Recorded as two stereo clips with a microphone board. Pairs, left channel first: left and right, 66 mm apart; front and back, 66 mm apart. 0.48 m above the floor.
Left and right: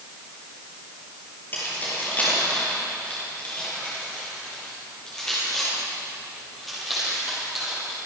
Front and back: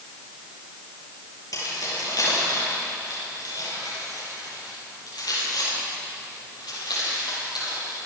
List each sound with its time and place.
1.5 s keys jangling: 30° left, 9 m; by 8.0 s 5° right, 11.5 m